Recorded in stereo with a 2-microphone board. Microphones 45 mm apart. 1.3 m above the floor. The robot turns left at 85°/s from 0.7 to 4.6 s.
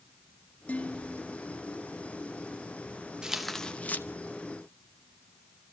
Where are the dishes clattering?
35° left, 1.8 m; by 1.4 s 20° right, 1.8 m.